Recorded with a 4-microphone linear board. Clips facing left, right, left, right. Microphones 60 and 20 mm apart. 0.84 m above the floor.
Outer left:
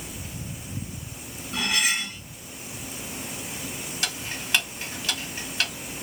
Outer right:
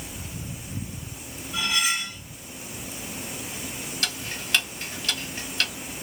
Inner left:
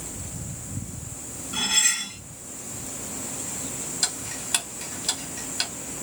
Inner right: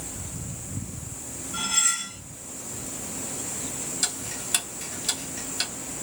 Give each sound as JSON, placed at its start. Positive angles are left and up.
{"t": 1.5, "sound": "cutlery clinking", "side_deg": 70, "distance_m": 0.8}
{"t": 4.0, "sound": "ticking", "side_deg": 15, "distance_m": 1.1}